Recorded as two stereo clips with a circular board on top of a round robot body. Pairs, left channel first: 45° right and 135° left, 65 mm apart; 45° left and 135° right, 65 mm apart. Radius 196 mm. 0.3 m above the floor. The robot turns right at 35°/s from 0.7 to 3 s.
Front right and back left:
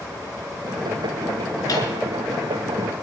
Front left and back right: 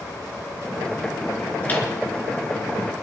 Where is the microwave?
20° right, 5 m; by 1.9 s 10° right, 5 m.